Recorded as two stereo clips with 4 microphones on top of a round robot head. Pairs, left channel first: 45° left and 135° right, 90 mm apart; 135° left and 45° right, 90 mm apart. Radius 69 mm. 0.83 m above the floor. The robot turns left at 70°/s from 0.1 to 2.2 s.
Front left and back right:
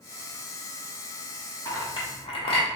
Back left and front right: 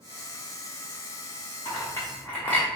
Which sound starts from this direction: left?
A clink, at 1.6 s.